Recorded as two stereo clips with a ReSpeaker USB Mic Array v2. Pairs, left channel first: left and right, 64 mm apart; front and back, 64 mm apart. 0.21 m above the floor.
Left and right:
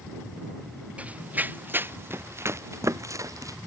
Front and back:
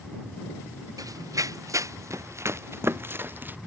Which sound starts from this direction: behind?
Running footsteps, at 1.0 s.